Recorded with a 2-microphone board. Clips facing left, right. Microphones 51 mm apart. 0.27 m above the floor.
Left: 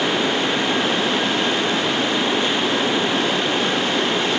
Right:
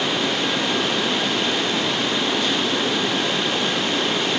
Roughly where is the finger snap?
No finger snap in this recording.